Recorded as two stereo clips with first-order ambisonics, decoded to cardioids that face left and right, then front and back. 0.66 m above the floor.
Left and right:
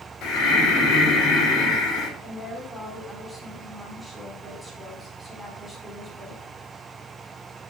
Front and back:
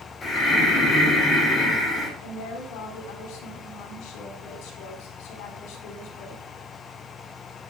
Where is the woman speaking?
10° left, 4 m.